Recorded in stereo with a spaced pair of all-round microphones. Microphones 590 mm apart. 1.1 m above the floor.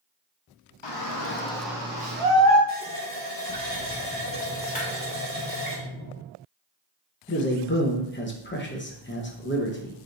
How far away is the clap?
About 1.8 m.